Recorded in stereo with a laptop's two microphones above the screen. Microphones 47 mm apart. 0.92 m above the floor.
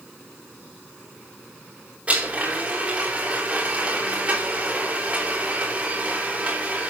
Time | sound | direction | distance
2.1 | a blender | 30° right (ahead or behind) | 4 m